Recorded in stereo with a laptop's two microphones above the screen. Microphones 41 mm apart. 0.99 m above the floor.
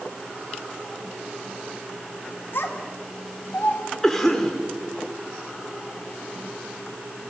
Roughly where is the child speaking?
Left.